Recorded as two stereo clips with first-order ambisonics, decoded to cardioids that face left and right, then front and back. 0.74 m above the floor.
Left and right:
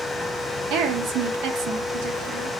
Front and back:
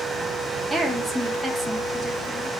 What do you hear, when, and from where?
0.7 s a woman speaking: 95° right, 0.9 m